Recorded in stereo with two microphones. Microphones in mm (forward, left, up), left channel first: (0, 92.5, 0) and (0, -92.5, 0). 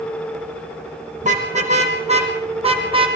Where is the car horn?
40° right (ahead or behind), 4.5 m; by 3.1 s 30° right (ahead or behind), 3.5 m.